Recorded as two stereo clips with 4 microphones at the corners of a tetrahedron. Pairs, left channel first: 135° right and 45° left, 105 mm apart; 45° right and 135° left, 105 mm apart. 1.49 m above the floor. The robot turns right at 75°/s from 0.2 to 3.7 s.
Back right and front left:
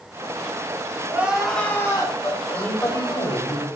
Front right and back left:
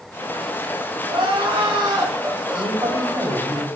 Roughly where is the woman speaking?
Behind left.